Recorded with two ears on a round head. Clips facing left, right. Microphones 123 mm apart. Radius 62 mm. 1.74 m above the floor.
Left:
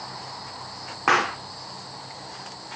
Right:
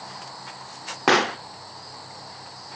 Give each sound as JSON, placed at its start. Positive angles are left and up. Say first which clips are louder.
{"t": 1.1, "sound": "a pop", "louder": "right 3 dB", "side_deg": -35, "distance_m": 0.5}